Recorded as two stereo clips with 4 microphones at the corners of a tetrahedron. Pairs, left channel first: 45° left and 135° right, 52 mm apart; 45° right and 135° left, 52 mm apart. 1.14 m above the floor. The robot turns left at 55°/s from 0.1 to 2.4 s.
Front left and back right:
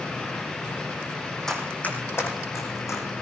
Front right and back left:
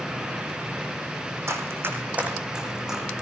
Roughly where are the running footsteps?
Behind left.